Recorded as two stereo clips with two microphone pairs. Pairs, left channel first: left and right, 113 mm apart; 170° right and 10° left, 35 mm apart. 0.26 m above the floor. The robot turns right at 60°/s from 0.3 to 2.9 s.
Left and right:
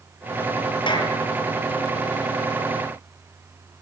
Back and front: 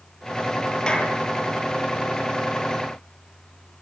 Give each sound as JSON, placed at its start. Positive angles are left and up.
{"t": 0.9, "sound": "a clap", "azimuth_deg": 125, "distance_m": 4.5}